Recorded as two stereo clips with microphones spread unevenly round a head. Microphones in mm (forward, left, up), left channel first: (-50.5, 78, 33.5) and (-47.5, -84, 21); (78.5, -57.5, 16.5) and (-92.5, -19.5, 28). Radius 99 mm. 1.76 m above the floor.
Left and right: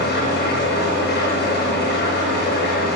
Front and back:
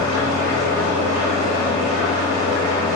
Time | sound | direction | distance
0.0 | an engine running | 105° left | 7 m